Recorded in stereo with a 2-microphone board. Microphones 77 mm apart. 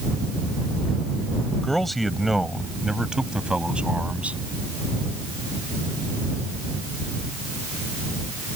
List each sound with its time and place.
1.6 s a man speaking: 5° left (ahead or behind); by 4.4 s 15° right (ahead or behind)